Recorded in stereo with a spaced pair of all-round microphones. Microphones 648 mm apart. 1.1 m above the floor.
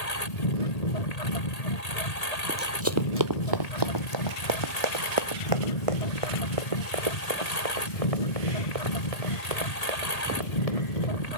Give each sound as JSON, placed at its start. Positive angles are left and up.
{"t": 0.0, "sound": "a lawn mower", "side_deg": 70}
{"t": 2.5, "sound": "running footsteps", "side_deg": -10}